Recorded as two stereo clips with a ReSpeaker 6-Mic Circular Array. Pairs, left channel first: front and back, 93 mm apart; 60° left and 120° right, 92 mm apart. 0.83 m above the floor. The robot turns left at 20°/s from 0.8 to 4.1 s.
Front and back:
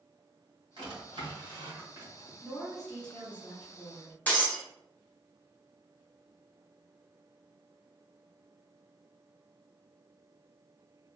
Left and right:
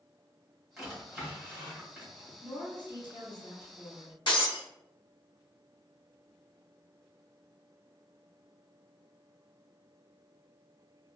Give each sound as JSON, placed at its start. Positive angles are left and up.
{"t": 0.8, "sound": "a drawer", "azimuth_deg": 150, "distance_m": 1.8}
{"t": 2.4, "sound": "a woman speaking", "azimuth_deg": 90, "distance_m": 1.5}
{"t": 4.3, "sound": "breaking glass", "azimuth_deg": 70, "distance_m": 1.2}